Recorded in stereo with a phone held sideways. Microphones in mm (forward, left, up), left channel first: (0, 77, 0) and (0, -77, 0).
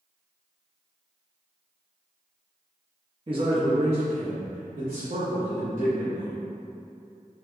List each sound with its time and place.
3.3 s a man speaking: 35° right (ahead or behind), 0.7 m; by 6.4 s 40° right (ahead or behind), 1.5 m